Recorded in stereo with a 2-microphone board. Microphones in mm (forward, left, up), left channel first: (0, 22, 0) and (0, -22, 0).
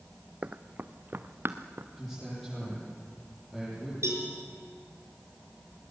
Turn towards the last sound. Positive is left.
turn(degrees=-75)  # may be behind; listen again after turning